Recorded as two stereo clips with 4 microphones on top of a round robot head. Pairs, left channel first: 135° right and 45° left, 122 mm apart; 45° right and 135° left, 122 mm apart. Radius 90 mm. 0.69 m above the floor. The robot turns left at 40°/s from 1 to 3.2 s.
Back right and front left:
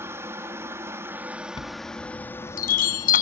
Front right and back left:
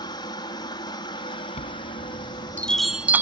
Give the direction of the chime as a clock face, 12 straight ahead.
3 o'clock.